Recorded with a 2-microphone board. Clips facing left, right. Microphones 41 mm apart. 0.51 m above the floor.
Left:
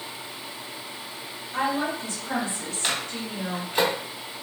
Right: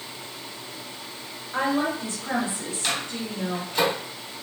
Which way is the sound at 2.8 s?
20° left (ahead or behind).